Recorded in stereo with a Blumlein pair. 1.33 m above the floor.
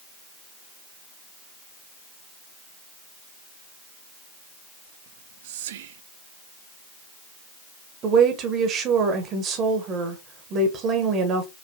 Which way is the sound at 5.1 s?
55° right.